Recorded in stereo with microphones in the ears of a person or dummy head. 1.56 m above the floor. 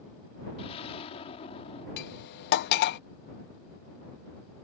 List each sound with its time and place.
0.6 s an explosion: 35° left (ahead or behind)
2.0 s cutlery clinking: 60° left (ahead or behind)